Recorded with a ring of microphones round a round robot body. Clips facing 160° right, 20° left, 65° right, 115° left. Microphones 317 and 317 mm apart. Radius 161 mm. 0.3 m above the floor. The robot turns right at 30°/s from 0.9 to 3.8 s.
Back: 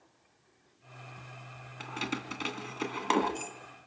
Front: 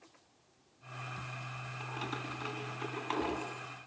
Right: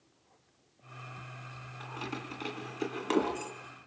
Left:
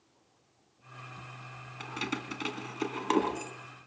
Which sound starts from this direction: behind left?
Keys jangling, at 1.8 s.